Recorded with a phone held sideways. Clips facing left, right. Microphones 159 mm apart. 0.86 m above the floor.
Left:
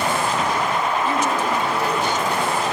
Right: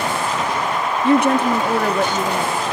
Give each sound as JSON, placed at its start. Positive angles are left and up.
{"t": 1.0, "sound": "a woman speaking", "side_deg": -65, "distance_m": 1.8}